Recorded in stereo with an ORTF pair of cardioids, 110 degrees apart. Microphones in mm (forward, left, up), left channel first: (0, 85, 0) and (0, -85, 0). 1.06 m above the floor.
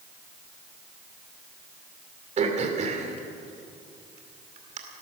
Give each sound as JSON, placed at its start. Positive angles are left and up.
{"t": 2.4, "sound": "throat clearing", "azimuth_deg": -40, "distance_m": 2.5}